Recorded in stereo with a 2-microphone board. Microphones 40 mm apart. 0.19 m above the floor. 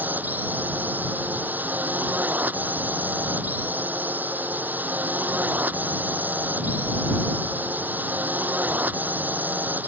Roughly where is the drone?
Right.